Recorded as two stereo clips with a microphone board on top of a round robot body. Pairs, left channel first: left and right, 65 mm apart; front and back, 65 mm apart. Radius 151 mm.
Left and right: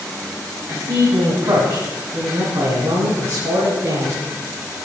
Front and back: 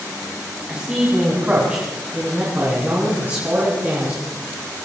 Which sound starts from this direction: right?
A man speaking, at 0.7 s.